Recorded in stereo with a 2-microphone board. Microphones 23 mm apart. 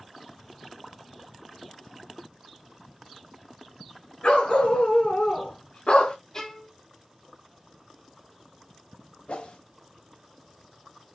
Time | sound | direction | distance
4.2 | a dog barking | 60° left (ahead or behind) | 3.5 m
6.3 | a violin | 30° left (ahead or behind) | 1.5 m
9.3 | a whoosh | 75° left (ahead or behind) | 1.3 m